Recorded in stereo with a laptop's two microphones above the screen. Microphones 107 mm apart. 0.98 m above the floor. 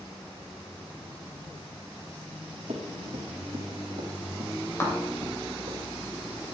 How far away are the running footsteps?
About 4 m.